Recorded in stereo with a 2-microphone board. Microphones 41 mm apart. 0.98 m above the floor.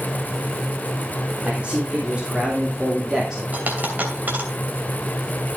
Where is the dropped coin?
45° right (ahead or behind), 2.5 m.